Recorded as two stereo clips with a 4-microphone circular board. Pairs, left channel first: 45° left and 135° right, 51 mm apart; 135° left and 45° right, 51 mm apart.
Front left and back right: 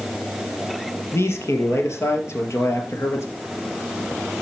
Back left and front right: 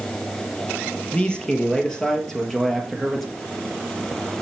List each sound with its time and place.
1.1 s a man speaking: 65° left, 3.5 m; by 3.3 s 40° left, 2.5 m